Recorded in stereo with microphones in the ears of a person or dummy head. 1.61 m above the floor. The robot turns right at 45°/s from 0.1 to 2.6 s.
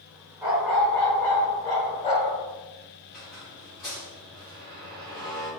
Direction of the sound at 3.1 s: Centre (ahead or behind).